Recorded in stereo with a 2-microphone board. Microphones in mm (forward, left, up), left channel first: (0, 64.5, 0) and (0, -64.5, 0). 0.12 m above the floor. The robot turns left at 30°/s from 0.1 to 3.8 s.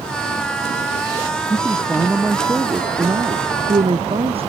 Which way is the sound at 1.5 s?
15° left.